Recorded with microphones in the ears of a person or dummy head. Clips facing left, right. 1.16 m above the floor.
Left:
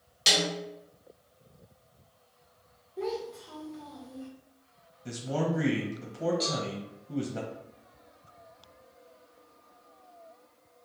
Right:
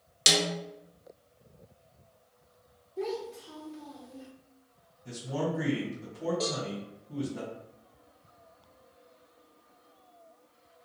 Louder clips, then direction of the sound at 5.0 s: Left 2 dB; 65° left (ahead or behind).